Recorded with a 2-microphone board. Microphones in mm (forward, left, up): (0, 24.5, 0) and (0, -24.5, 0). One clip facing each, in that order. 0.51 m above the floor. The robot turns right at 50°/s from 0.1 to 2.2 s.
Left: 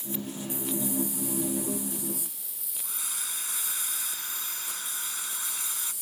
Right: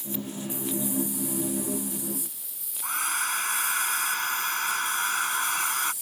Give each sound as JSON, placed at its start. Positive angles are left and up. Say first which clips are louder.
{"t": 2.8, "sound": "a hair dryer", "louder": "right 13 dB", "side_deg": -55}